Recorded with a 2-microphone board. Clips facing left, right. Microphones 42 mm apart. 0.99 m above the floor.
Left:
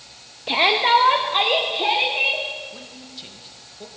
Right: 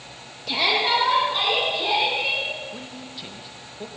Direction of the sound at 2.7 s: 10° right (ahead or behind).